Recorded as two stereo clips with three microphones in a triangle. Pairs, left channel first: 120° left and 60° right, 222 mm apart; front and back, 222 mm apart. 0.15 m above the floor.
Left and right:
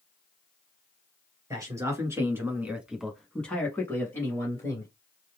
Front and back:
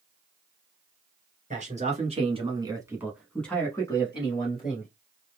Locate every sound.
1.5 s a man speaking: 130° right, 2.0 m; by 4.9 s 50° left, 1.9 m